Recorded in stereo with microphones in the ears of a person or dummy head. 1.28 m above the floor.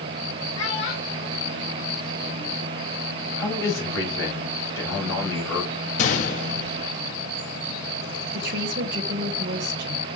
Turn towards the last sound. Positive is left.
turn(degrees=-55)  # may be behind; listen again after turning